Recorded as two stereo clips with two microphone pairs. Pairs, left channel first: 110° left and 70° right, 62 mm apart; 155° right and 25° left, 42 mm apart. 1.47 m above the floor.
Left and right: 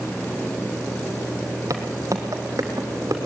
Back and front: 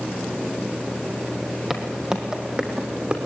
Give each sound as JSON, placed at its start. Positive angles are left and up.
{"t": 1.7, "sound": "footsteps", "azimuth_deg": -50, "distance_m": 2.5}